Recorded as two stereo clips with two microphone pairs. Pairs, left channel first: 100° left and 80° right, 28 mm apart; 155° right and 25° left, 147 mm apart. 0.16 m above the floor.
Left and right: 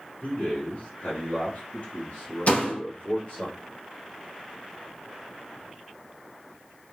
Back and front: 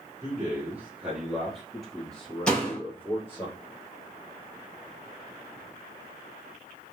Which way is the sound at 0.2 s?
95° left.